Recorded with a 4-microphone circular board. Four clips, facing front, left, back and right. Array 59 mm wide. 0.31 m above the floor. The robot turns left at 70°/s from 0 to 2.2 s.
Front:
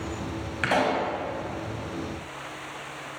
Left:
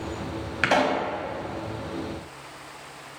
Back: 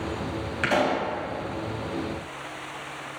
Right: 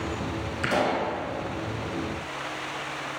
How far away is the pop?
About 2.0 m.